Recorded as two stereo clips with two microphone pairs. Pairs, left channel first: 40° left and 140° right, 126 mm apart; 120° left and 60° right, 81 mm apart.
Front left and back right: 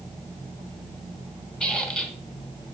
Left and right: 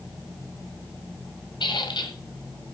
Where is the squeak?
125° left, 2 m.